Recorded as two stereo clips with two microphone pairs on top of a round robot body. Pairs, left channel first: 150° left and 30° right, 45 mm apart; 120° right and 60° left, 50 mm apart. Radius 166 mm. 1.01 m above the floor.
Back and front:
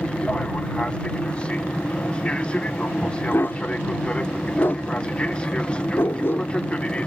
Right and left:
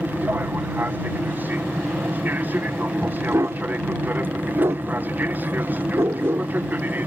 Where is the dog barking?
95° left.